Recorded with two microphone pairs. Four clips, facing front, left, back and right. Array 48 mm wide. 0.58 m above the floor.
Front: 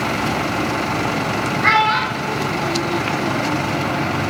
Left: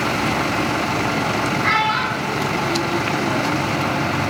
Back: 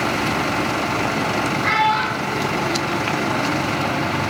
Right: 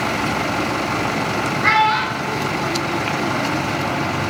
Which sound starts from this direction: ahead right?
A child speaking, at 1.6 s.